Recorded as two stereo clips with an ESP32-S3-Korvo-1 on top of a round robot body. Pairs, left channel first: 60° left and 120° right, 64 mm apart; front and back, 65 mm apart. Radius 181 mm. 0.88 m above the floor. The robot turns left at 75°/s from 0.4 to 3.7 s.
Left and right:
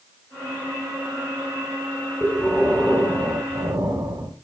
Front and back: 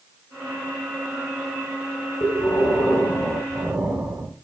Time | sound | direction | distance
2.2 | breathing | 5° left | 4 m